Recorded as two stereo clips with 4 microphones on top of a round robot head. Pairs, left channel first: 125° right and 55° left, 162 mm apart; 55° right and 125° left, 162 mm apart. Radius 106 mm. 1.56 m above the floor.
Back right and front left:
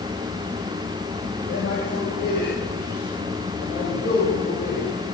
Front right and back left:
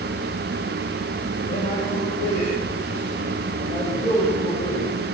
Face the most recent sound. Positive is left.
turn(degrees=-115)